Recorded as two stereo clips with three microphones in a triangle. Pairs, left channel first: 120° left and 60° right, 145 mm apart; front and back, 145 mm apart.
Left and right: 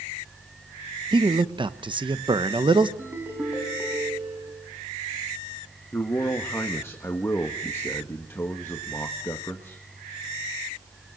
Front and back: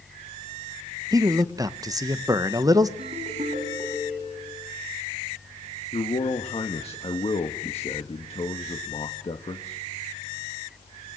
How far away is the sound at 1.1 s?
About 1.0 m.